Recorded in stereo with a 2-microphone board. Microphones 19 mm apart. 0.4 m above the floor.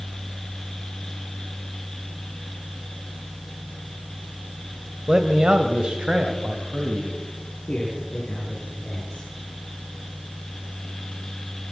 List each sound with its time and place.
5.1 s a man speaking: 25° right (ahead or behind), 1.6 m; by 7.2 s 70° right (ahead or behind), 3 m
7.7 s a man speaking: 55° left (ahead or behind), 7 m